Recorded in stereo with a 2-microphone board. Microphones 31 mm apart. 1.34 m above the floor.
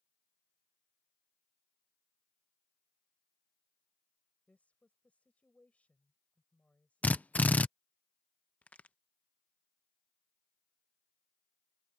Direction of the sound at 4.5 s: 40° left (ahead or behind).